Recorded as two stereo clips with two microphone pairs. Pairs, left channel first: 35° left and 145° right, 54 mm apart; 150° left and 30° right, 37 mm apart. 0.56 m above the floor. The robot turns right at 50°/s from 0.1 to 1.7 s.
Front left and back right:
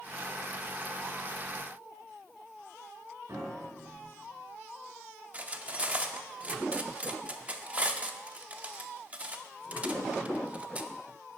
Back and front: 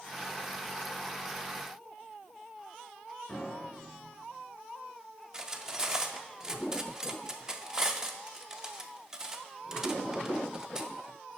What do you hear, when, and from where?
3.3 s a piano: 155° right, 4 m
5.3 s cutlery clinking: 95° right, 0.5 m